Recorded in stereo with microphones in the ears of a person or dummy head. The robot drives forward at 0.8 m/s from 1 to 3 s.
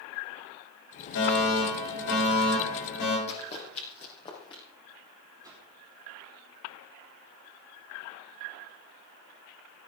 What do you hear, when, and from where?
1.1 s a fire alarm: 75° left (ahead or behind), 8.5 m; by 3.2 s 65° left (ahead or behind), 8.5 m
3.3 s running footsteps: 35° left (ahead or behind), 3 m; by 4.6 s 30° left (ahead or behind), 4 m
5.4 s a whoosh: 20° right (ahead or behind), 3 m